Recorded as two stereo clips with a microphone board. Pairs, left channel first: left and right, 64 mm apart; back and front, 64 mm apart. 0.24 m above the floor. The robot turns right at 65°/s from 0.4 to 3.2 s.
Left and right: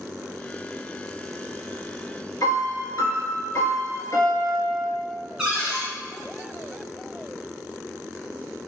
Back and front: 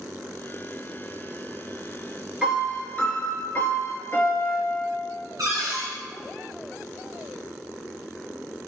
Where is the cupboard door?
10° right, 1.9 m.